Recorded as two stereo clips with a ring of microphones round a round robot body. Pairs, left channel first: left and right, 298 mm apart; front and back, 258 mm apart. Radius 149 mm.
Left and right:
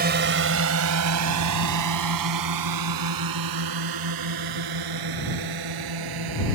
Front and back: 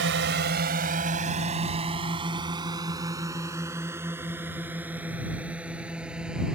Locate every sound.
0.0 s a drone: 140° right; by 6.6 s 90° right